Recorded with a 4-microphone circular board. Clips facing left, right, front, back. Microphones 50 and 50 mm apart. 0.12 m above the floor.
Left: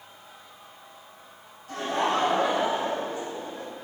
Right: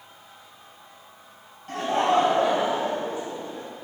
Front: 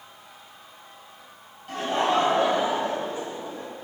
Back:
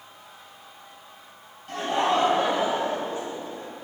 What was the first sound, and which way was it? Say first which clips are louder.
Laughter: right 4 dB, even; 90° right.